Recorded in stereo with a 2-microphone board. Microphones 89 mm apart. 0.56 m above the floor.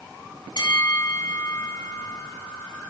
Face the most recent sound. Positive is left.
turn(degrees=55)  # may be behind; listen again after turning